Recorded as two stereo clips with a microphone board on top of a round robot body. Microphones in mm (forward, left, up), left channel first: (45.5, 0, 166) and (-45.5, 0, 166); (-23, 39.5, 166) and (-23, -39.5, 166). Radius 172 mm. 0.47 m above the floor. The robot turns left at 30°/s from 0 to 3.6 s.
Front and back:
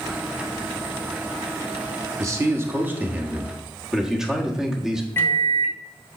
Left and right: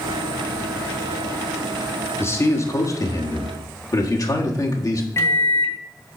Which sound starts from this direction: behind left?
A man speaking, at 2.2 s.